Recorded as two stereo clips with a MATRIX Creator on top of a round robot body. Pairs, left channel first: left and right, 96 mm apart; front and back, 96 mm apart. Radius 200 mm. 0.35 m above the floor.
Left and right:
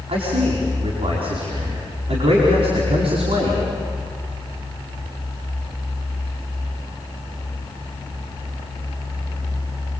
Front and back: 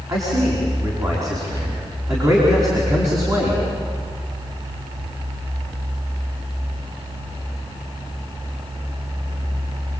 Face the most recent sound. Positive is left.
turn(degrees=-120)